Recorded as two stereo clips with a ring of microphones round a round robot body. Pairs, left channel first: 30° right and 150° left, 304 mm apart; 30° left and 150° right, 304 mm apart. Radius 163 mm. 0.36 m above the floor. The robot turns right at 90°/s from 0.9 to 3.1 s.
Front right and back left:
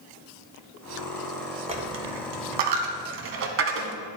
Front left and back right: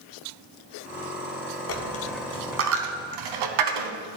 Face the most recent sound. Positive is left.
turn(degrees=-155)